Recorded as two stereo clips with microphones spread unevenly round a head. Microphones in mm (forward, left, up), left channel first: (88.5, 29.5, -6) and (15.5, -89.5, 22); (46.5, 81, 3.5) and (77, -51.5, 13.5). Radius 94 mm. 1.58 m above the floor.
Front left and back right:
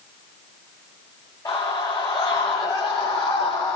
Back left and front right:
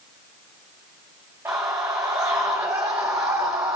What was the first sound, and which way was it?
A scream, 5° right.